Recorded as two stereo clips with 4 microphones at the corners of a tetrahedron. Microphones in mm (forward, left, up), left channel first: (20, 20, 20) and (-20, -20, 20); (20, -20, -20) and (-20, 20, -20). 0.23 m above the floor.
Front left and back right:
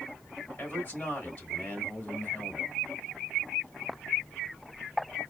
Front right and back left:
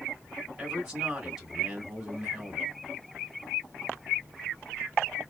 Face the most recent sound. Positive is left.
turn(degrees=65)